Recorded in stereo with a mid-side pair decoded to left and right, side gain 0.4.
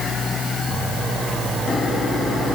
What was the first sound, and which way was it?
Only background noise.